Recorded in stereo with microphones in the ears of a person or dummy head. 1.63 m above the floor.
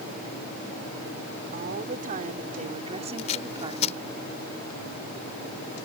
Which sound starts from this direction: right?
A woman speaking, at 1.5 s.